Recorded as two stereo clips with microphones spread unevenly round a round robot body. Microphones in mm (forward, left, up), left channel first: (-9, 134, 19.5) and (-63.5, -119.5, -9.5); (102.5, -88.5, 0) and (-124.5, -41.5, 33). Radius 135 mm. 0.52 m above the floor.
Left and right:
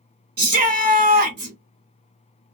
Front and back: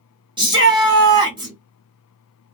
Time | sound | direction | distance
0.4 | a shout | 115° right | 1.5 m